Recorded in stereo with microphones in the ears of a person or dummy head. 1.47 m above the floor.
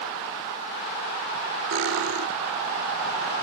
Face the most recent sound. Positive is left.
turn(degrees=-65)  # may be behind; listen again after turning